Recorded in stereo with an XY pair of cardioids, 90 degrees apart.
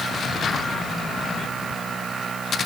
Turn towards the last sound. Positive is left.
No sound to turn to.